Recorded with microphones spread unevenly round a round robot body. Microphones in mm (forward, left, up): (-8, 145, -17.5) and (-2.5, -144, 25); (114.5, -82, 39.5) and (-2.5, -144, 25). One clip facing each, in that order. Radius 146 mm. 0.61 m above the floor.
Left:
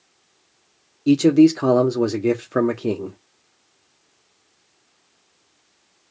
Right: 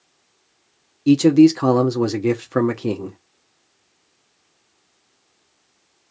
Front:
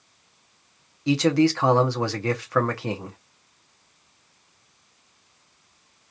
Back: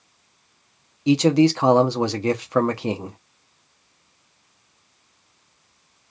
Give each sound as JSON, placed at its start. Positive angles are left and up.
{"t": 1.1, "sound": "a man speaking", "azimuth_deg": -170, "distance_m": 0.6}